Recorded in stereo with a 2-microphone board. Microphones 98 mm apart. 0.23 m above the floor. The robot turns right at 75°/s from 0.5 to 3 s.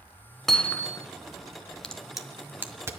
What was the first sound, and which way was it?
Hammering, 5° left.